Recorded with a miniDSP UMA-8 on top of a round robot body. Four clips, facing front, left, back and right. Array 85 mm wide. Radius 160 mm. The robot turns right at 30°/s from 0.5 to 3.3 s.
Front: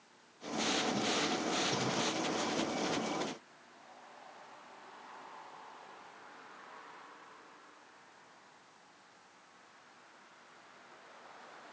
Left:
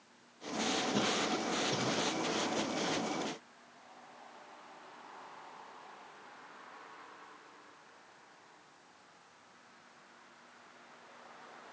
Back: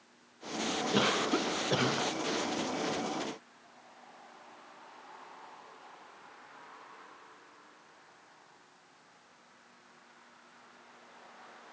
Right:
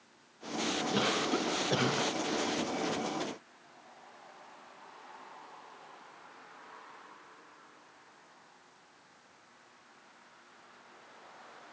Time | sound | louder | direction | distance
0.9 | a cough | right 5 dB, back 5 dB | 170° right | 2 m